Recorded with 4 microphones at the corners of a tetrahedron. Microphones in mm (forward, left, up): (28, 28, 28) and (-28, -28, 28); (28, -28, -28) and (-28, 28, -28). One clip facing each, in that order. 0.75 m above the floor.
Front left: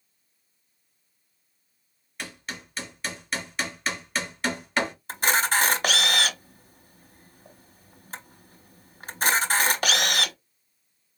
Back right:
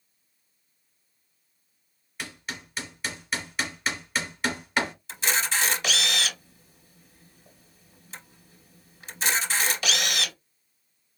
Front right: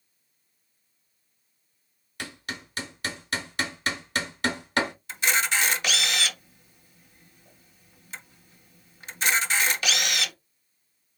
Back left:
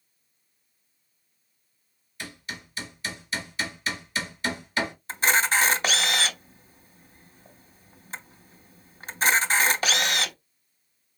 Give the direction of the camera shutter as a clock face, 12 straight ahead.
9 o'clock.